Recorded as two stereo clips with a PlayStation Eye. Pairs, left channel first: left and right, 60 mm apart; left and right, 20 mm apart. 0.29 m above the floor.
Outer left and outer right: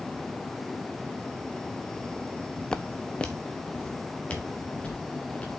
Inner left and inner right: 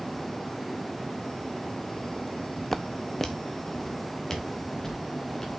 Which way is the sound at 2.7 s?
10° left (ahead or behind).